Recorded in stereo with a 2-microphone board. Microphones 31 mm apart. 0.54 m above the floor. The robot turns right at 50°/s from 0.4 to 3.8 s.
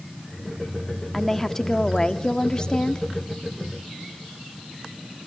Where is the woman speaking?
5° left (ahead or behind), 0.8 m; by 3.1 s 25° left (ahead or behind), 0.8 m.